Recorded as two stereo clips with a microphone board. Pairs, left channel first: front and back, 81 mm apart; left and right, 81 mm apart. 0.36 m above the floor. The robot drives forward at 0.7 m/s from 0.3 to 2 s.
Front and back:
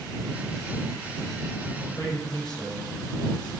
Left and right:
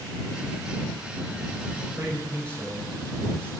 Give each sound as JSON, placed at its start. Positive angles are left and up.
{"t": 1.8, "sound": "a man speaking", "azimuth_deg": -30, "distance_m": 9.0}